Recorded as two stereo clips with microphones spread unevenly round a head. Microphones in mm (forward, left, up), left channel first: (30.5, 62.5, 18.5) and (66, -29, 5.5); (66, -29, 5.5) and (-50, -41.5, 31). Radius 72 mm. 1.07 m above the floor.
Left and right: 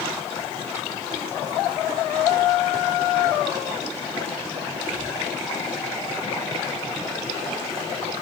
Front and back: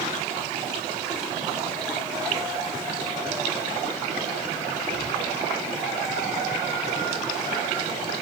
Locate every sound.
Only background noise.